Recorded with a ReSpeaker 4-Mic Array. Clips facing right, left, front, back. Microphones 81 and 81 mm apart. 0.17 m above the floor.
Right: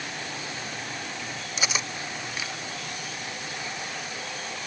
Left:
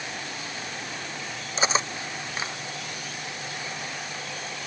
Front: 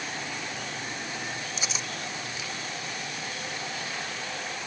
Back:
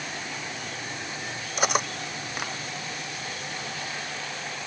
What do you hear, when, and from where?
1.6 s cutlery clinking: 145° left